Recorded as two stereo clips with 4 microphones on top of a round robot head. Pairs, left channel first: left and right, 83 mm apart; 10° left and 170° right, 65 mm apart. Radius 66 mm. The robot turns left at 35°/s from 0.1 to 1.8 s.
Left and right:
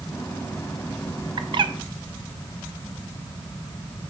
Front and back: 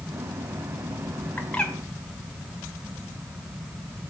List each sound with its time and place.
1.4 s a bird: 60° right, 1.5 m; by 1.7 s 75° right, 1.5 m